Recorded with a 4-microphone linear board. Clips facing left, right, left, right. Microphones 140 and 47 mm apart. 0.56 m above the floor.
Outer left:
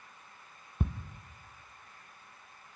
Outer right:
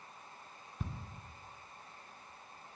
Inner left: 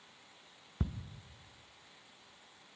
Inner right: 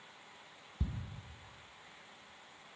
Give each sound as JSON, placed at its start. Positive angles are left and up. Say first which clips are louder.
{"t": 0.8, "sound": "ticking", "louder": "outer left 9 dB, inner left 4 dB", "side_deg": 55, "distance_m": 0.5}